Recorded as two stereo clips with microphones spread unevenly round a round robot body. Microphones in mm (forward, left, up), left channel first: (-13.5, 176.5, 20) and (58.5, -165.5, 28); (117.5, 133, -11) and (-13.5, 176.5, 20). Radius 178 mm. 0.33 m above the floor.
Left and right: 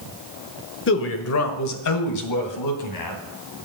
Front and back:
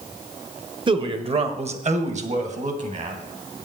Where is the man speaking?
115° left, 1.2 m; by 3.2 s 130° left, 2.5 m.